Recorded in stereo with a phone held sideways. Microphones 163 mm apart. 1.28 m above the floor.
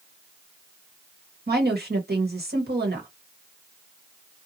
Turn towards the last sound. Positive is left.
turn(degrees=-80)